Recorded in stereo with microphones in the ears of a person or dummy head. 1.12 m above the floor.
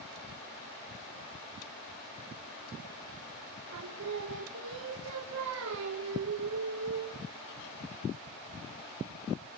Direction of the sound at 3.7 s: 80° right.